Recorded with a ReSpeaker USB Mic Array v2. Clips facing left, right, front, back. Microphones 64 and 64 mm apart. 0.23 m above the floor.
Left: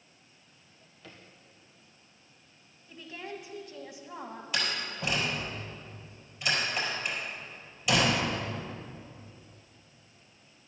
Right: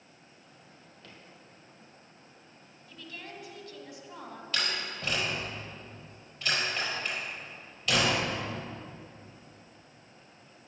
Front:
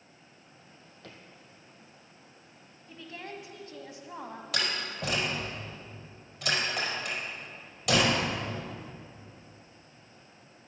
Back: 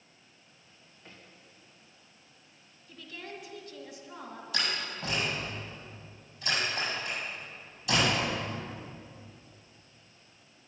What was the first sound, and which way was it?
A drawer, 5° left.